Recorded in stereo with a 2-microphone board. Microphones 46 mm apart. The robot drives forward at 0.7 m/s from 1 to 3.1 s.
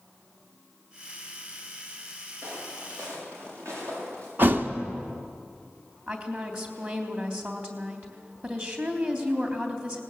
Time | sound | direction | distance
2.4 | footsteps | 80° right | 7.5 m
4.4 | a thud | 50° right (ahead or behind) | 1.0 m
6.1 | a woman speaking | 35° right (ahead or behind) | 3 m